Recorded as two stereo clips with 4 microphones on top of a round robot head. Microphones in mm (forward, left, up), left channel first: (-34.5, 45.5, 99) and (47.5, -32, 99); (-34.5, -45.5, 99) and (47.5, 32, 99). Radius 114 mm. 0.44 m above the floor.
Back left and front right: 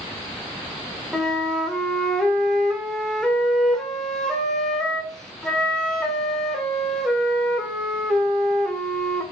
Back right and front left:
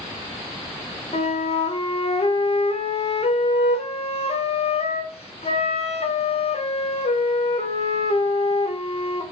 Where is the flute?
140° right, 1.8 m.